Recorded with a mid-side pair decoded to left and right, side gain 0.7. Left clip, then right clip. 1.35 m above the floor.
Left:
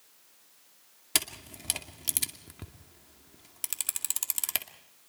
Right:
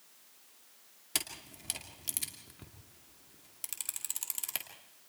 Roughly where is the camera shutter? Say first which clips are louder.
Left 6 dB; ahead left.